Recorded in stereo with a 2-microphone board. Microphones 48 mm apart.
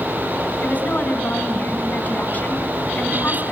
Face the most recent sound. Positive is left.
turn(degrees=35)  # may be behind; listen again after turning